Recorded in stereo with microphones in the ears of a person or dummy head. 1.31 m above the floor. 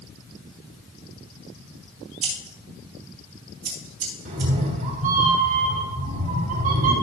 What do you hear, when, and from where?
2.2 s scissors: 35° right (ahead or behind), 2.5 m
4.2 s a cat meowing: 40° right (ahead or behind), 1.7 m